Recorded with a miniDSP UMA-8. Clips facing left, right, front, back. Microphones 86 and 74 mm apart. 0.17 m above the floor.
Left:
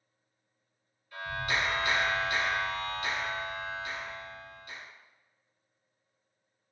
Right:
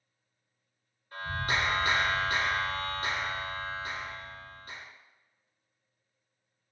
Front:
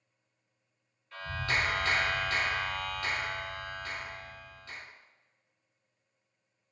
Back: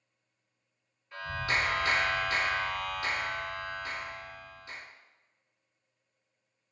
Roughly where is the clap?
Right.